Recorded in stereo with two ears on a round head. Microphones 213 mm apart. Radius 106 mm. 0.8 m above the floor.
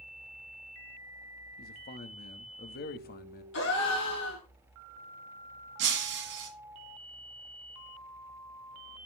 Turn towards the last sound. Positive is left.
turn(degrees=-50)  # may be behind; listen again after turning